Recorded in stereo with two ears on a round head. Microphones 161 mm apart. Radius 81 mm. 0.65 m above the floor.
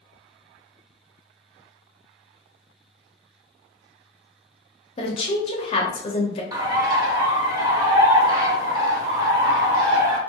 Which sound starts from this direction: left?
A woman speaking, at 5.0 s.